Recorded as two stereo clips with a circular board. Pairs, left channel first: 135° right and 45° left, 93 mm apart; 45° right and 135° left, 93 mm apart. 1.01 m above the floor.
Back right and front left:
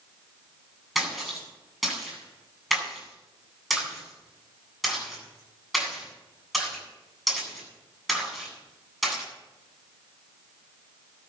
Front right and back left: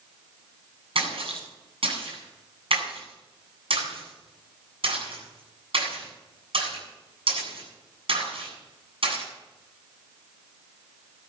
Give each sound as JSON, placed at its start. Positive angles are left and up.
{"t": 0.9, "sound": "a splash", "azimuth_deg": 135, "distance_m": 8.5}